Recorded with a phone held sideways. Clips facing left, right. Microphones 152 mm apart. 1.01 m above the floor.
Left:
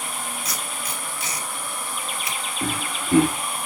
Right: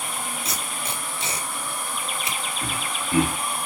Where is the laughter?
50° left (ahead or behind), 2.5 m.